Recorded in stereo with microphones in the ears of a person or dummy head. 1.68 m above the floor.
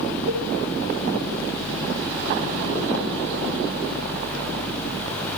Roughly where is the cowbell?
Right.